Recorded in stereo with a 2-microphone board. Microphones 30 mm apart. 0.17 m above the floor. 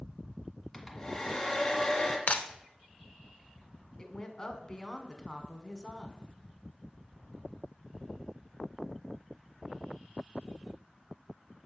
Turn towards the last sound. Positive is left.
turn(degrees=20)  # may be behind; listen again after turning